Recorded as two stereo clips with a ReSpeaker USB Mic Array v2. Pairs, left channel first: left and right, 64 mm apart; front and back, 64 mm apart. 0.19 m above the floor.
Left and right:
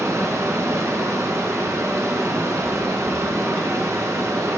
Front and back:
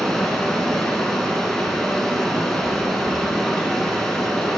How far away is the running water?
About 1.0 m.